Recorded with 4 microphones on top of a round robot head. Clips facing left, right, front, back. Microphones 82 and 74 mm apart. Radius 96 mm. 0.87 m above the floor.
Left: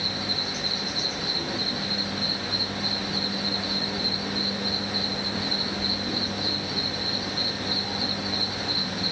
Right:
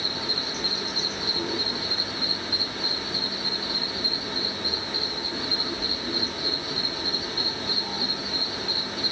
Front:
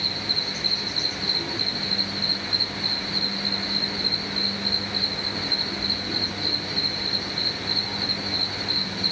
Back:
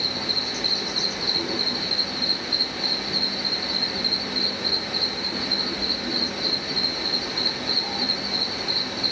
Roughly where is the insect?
Behind right.